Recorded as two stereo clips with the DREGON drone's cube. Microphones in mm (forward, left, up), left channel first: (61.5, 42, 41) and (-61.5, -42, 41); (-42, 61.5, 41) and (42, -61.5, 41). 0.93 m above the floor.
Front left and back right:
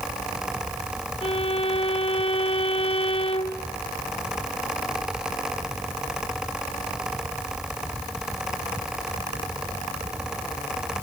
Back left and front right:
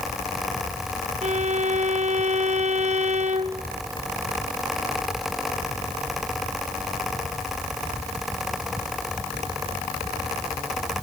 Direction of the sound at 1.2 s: 15° right.